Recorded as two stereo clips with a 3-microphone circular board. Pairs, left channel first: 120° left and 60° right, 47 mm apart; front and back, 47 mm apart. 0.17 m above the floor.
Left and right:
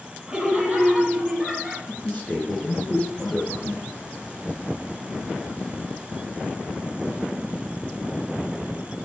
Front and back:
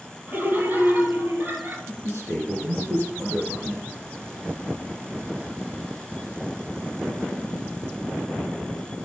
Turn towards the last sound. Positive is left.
turn(degrees=180)